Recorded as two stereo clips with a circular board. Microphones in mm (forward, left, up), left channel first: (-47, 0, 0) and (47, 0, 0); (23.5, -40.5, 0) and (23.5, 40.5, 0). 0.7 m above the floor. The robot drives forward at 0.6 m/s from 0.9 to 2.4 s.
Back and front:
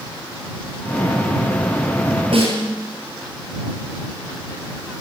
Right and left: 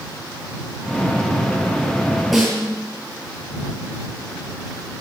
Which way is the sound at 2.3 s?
5° left.